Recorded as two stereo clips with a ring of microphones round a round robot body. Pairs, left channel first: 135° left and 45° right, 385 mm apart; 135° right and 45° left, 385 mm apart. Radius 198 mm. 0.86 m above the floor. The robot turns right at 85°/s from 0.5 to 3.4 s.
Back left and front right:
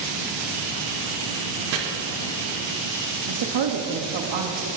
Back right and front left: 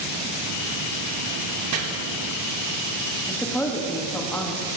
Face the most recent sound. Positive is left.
turn(degrees=-50)